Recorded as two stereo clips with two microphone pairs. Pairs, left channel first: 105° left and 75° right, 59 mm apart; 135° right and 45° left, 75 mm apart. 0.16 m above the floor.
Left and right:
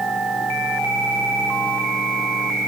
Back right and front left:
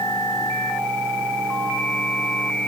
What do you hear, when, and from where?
Only background noise.